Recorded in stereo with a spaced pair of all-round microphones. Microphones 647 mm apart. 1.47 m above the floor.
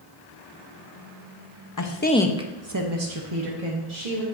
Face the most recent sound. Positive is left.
turn(degrees=-70)  # may be behind; listen again after turning